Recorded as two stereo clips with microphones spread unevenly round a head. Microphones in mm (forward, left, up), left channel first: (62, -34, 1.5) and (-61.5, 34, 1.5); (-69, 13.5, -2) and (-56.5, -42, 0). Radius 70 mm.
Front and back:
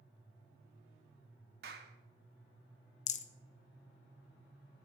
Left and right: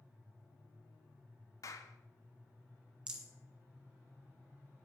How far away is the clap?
About 1.6 m.